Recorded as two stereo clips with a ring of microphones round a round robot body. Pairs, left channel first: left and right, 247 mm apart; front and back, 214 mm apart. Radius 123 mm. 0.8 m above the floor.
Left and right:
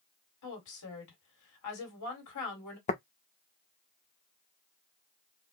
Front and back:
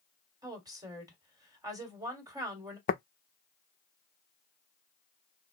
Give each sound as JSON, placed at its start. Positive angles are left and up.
{"t": 0.4, "sound": "a woman speaking", "azimuth_deg": 105, "distance_m": 2.0}
{"t": 2.9, "sound": "tapping", "azimuth_deg": 35, "distance_m": 0.6}